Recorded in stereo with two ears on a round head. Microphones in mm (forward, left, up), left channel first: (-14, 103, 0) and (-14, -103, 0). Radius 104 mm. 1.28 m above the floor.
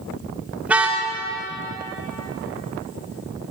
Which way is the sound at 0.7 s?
5° right (ahead or behind).